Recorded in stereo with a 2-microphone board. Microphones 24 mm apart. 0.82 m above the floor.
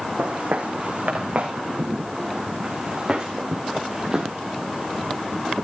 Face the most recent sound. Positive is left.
turn(degrees=-5)  # may be behind; listen again after turning